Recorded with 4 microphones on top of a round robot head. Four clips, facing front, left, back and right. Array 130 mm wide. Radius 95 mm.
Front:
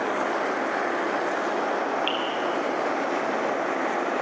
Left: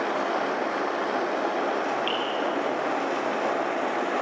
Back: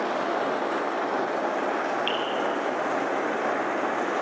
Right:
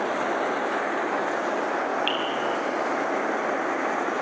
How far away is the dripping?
About 5.5 m.